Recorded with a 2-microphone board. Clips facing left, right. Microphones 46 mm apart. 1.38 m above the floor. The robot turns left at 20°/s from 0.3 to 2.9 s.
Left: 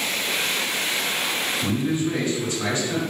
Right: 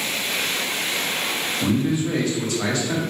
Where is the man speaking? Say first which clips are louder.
Right 4 dB; 85° right, 1.1 m; by 3.0 s 60° right (ahead or behind), 1.1 m.